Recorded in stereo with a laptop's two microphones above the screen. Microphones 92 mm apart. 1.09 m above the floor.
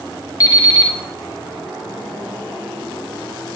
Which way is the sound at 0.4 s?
40° left (ahead or behind).